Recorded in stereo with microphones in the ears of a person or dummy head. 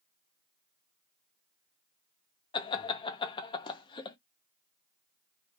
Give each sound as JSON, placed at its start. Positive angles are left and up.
{"t": 2.5, "sound": "laughter", "side_deg": 20, "distance_m": 0.7}